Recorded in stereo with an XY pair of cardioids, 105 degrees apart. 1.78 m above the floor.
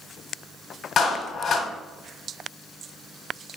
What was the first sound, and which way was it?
A clap, 55° left.